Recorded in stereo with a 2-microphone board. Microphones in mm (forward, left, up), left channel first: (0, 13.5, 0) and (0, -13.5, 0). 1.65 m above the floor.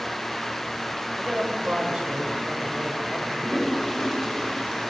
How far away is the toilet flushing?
About 7 m.